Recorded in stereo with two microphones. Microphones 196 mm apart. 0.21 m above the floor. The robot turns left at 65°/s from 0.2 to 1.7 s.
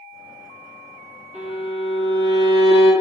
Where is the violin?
35° right (ahead or behind), 1.4 m; by 2.9 s 25° right (ahead or behind), 1.4 m.